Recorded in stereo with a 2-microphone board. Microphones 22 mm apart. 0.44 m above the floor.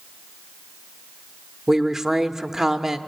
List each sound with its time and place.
1.7 s a woman speaking: 20° right (ahead or behind), 0.9 m